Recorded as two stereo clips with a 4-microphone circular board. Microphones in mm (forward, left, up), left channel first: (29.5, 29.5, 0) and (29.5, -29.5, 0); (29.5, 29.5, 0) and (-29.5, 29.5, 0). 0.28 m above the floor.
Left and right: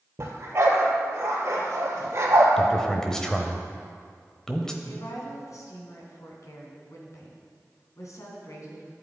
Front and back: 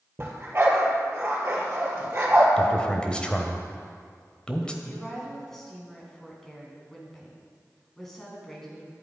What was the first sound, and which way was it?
A dog barking, 130° right.